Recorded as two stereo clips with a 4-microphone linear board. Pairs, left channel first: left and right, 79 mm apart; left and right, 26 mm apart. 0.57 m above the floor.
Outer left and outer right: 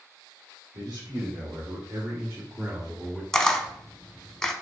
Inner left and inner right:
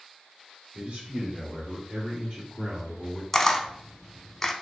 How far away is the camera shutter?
About 0.6 m.